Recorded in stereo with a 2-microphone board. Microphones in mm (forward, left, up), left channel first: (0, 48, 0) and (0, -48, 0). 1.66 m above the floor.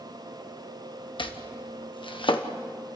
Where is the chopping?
60° left (ahead or behind), 1.2 m.